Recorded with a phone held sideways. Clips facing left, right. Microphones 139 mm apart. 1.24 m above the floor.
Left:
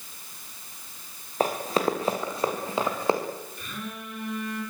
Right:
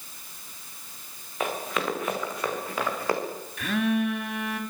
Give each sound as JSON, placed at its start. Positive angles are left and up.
{"t": 1.4, "sound": "running footsteps", "side_deg": 35, "distance_m": 5.0}
{"t": 3.6, "sound": "a phone buzzing", "side_deg": -80, "distance_m": 3.5}